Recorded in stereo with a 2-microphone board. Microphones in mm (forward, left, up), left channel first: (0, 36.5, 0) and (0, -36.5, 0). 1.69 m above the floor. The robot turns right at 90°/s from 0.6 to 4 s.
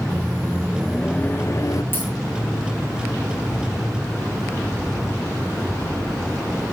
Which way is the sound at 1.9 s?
30° left (ahead or behind).